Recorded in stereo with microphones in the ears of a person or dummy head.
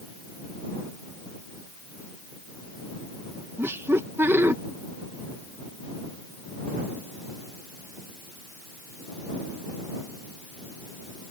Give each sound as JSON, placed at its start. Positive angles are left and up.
{"t": 3.6, "sound": "laughter", "side_deg": -10}